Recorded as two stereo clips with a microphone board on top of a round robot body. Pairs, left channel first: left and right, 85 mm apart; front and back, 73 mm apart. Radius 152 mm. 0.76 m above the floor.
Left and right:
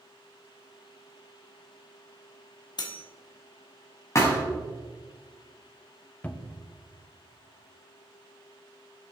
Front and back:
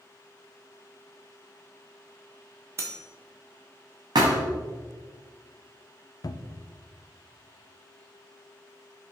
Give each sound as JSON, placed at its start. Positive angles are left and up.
{"t": 2.8, "sound": "cutlery clinking", "azimuth_deg": 125, "distance_m": 1.0}
{"t": 4.2, "sound": "a thud", "azimuth_deg": 145, "distance_m": 0.9}
{"t": 6.2, "sound": "a cupboard door", "azimuth_deg": 20, "distance_m": 0.5}